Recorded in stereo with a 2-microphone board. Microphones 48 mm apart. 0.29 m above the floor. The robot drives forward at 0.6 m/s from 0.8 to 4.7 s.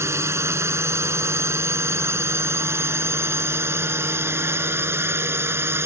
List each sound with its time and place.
0.0 s a drone: 65° right (ahead or behind); by 5.9 s 55° right (ahead or behind)